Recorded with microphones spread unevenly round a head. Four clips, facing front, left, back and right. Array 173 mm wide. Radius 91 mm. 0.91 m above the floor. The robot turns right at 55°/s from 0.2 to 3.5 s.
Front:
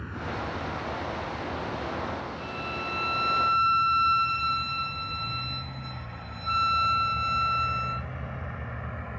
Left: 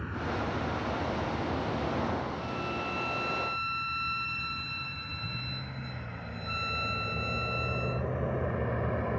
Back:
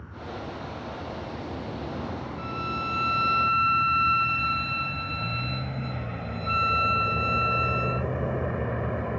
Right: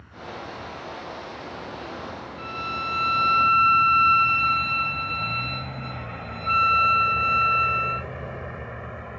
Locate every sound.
0.0 s a vehicle: 45° left; by 9.2 s 145° left
2.4 s a violin: 145° right; by 8.1 s 85° right